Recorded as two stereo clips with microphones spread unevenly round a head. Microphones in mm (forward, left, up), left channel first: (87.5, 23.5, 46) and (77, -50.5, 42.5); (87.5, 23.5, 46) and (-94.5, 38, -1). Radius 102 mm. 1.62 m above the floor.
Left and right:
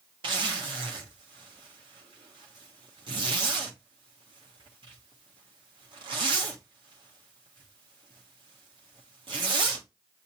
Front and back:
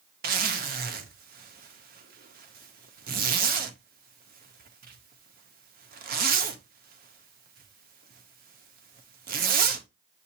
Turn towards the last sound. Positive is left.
turn(degrees=-130)